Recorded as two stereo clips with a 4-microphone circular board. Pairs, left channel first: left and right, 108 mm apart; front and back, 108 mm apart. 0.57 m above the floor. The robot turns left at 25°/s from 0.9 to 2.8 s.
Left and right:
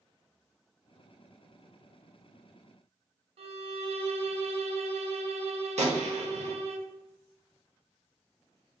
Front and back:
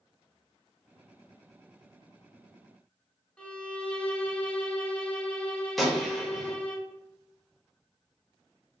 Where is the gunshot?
90° right, 0.8 m.